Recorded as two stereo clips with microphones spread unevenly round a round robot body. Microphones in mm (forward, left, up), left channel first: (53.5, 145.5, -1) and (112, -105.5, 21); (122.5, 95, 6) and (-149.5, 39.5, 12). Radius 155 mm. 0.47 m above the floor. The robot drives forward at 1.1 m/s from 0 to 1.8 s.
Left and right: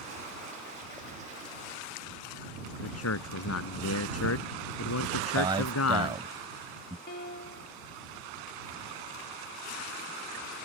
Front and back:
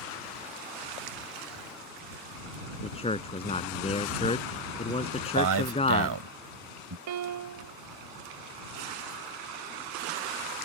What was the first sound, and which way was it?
A man speaking, 80° left.